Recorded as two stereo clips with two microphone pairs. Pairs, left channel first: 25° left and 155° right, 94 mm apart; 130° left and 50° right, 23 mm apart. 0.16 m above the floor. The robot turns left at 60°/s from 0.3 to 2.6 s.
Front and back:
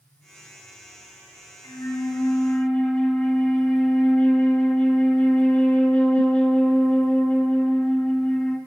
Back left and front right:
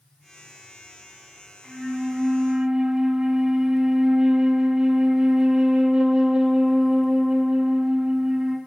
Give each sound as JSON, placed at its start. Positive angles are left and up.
{"t": 1.6, "sound": "a flute", "azimuth_deg": 15, "distance_m": 1.5}